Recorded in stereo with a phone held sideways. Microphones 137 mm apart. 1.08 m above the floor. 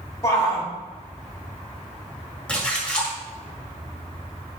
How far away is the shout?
About 3.5 m.